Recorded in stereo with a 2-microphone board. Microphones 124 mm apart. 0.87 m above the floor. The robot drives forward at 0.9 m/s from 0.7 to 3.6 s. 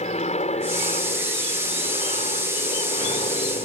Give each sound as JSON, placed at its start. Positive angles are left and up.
{"t": 0.0, "sound": "an aircraft", "side_deg": 65}